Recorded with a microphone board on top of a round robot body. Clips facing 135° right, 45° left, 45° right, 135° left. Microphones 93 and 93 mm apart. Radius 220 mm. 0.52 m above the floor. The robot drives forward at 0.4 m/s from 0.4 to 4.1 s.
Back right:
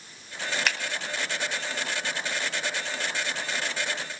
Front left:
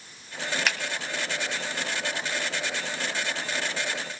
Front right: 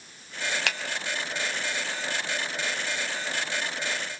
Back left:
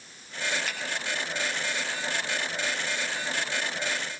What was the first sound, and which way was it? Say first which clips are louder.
A finger snap: even, front right 4 dB; 45° right.